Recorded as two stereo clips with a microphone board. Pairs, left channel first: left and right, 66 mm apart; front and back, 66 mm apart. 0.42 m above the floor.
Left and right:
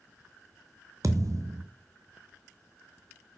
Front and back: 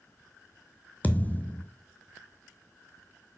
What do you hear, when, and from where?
1.0 s a thud: 65° right, 0.9 m